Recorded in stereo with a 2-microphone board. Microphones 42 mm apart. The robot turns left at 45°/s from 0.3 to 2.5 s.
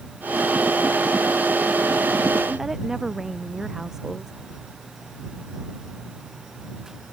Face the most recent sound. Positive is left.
turn(degrees=-10)  # may be behind; listen again after turning